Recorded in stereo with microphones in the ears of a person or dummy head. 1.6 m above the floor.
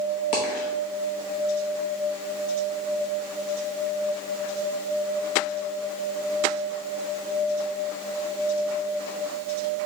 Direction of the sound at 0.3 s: 25° left (ahead or behind).